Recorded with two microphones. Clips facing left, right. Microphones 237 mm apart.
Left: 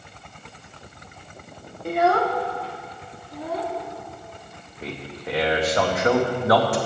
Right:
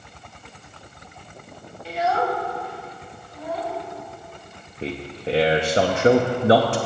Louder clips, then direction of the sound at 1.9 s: Left 3 dB; 45° left (ahead or behind).